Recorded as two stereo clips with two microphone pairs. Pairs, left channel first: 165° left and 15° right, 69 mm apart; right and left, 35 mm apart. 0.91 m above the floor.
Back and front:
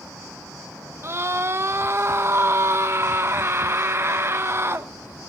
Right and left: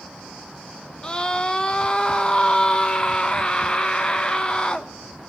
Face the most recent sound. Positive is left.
turn(degrees=-40)